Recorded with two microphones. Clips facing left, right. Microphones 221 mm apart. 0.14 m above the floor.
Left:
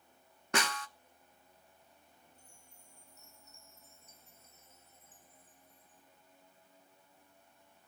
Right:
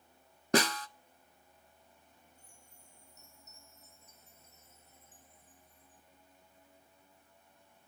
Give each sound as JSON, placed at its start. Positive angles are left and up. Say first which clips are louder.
{"t": 0.5, "sound": "a snare drum", "louder": "right 7 dB", "side_deg": -35, "distance_m": 0.8}
{"t": 2.4, "sound": "a chime", "louder": "even", "side_deg": 30, "distance_m": 8.5}